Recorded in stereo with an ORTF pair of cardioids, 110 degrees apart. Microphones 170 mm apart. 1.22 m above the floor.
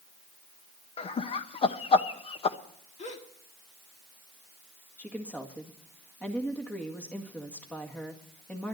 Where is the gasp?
40° left, 1.8 m.